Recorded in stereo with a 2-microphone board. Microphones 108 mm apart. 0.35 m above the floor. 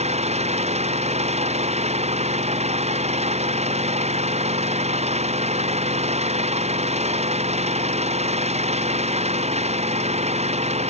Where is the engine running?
90° right.